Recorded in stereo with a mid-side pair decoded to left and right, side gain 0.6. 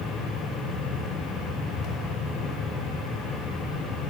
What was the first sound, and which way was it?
A fan, 60° left.